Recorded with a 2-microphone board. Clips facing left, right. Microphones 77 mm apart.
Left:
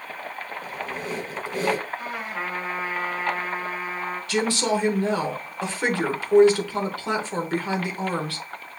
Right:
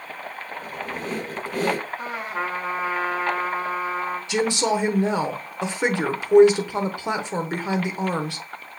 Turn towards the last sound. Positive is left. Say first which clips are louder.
# right 1 dB
turn(degrees=-20)  # may be behind; listen again after turning